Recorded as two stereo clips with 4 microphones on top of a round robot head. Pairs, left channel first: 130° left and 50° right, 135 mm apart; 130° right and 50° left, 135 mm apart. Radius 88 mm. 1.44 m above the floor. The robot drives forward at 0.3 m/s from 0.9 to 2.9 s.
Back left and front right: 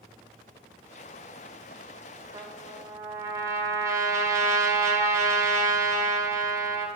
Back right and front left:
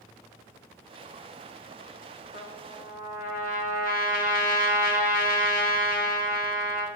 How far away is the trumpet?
About 1.3 m.